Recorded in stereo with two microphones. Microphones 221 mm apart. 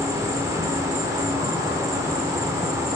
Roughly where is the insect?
Centre.